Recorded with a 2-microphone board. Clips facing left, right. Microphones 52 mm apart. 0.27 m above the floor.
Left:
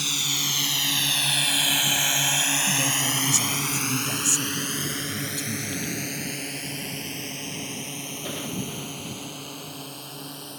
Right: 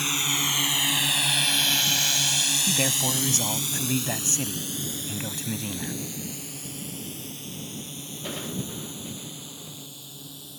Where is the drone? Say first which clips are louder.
Right 2 dB; 30° right (ahead or behind); by 10.6 s 65° left (ahead or behind).